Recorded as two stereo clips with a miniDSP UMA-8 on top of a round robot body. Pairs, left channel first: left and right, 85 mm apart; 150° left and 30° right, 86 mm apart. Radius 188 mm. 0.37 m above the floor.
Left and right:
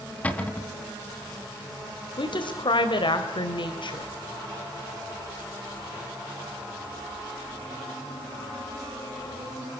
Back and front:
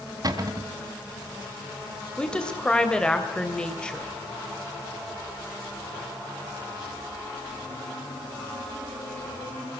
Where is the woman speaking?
70° left, 3 m.